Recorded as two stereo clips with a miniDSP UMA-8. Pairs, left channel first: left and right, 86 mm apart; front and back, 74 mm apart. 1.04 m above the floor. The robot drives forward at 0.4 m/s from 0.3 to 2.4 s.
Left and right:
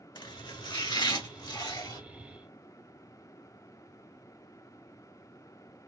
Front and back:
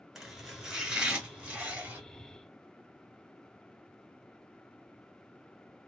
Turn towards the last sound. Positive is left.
turn(degrees=120)